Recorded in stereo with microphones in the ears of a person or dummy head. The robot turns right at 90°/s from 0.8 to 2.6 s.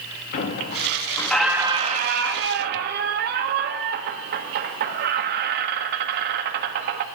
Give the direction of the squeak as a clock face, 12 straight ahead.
8 o'clock.